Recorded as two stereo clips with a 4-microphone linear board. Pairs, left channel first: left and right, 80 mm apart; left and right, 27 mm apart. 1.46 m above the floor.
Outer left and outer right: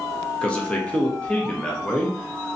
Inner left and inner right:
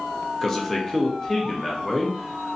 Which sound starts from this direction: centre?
A man speaking, at 0.4 s.